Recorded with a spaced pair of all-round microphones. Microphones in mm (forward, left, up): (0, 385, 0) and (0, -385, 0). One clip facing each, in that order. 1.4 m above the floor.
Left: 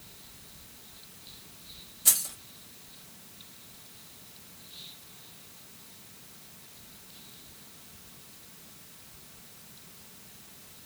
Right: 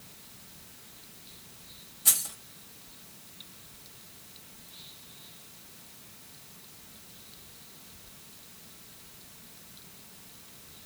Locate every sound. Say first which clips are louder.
2.0 s keys jangling: even; 10° left (ahead or behind), 1.2 m